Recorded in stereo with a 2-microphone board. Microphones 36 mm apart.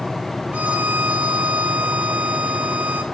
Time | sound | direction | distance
0.5 | a violin | 50° right (ahead or behind) | 2 m